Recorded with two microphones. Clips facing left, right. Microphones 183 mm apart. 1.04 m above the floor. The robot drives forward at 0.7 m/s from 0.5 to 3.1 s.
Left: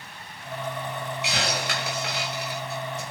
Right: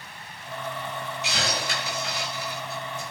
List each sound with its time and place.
1.2 s a hiss: 60° left (ahead or behind), 5.5 m; by 3.0 s 75° left (ahead or behind), 5 m